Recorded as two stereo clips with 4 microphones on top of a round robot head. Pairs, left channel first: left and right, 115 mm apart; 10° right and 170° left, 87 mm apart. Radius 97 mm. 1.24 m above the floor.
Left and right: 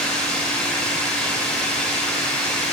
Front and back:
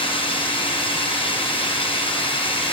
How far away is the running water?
About 5 m.